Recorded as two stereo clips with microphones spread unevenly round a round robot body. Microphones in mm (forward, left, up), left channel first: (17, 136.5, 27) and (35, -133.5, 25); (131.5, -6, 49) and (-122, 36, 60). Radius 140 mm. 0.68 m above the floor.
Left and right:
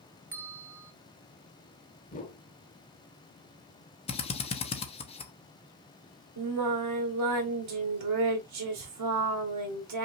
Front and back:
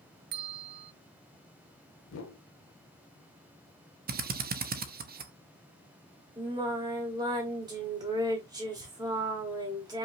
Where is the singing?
115° right, 1.4 m.